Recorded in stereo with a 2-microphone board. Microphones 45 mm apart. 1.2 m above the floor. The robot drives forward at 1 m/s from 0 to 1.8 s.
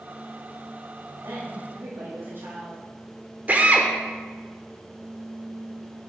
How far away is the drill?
About 1.1 m.